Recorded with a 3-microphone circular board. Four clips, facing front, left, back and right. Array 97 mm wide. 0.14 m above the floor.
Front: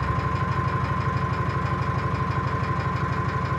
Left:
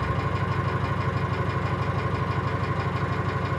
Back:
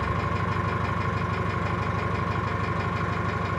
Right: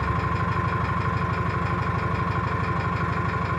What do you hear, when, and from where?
0.0 s an engine running: 105° right, 1.0 m